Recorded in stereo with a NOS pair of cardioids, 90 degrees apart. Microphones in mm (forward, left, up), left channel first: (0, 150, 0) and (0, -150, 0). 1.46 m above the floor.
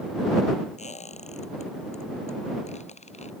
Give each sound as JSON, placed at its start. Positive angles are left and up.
{"t": 0.8, "sound": "a squeak", "azimuth_deg": 25}